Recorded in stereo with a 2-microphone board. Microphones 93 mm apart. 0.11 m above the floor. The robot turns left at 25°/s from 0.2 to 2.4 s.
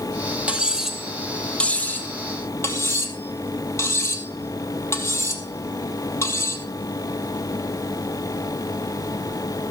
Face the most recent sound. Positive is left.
turn(degrees=30)  # may be behind; listen again after turning